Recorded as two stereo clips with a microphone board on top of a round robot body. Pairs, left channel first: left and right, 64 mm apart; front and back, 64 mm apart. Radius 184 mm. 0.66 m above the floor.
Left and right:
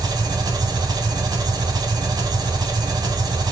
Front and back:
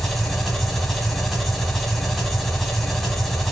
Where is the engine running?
85° right, 1.4 m.